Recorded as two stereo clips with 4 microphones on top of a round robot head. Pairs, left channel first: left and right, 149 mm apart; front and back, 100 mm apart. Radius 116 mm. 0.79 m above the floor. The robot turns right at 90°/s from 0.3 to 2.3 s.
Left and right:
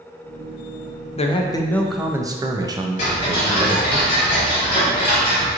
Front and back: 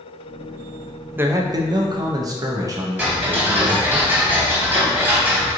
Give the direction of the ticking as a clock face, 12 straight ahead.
8 o'clock.